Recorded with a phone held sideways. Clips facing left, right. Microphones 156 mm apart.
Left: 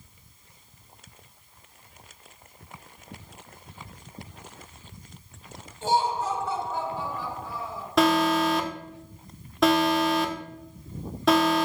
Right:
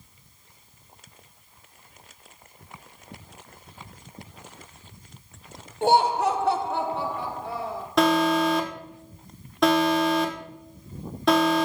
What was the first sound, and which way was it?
Laughter, 65° right (ahead or behind).